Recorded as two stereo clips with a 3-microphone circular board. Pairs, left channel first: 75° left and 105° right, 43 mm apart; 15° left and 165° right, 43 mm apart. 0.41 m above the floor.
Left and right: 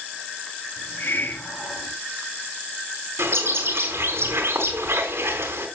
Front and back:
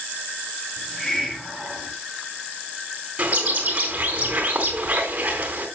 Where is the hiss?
90° left, 2.5 m.